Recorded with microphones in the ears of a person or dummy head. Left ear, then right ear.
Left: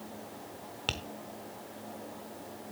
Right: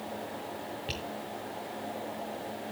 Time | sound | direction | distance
0.9 | tapping | 25° left (ahead or behind) | 1.0 m